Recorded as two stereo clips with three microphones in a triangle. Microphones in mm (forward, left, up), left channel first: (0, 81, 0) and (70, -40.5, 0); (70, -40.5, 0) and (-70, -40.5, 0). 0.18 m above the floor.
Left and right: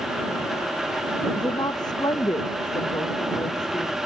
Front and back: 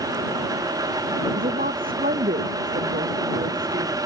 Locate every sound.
1.4 s a woman speaking: straight behind; by 4.0 s 175° right